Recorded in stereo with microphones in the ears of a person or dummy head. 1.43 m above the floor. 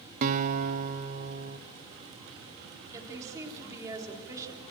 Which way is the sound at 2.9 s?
20° right (ahead or behind).